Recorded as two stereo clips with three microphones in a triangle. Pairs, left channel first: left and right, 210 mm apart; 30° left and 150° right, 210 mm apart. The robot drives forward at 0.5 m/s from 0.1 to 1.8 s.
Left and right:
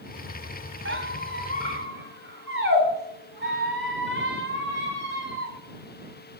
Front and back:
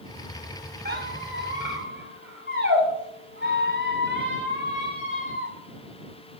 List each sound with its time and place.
0.8 s a squeak: 110° right, 1.7 m; by 5.5 s 125° right, 2.0 m